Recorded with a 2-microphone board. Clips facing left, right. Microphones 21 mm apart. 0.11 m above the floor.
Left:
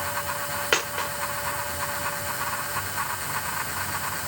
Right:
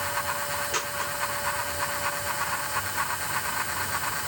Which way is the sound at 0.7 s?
80° left.